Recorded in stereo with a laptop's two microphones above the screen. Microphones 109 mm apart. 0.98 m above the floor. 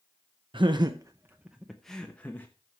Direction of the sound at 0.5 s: 55° right (ahead or behind).